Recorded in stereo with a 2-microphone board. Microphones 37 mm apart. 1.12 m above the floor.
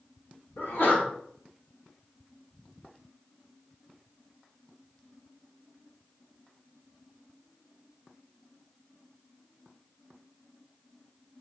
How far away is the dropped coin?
No dropped coin in this recording.